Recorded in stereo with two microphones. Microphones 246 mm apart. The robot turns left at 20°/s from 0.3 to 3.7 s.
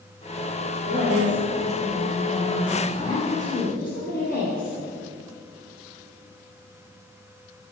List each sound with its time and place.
0.9 s a woman speaking: 165° right, 2.5 m; by 4.8 s 140° left, 2.5 m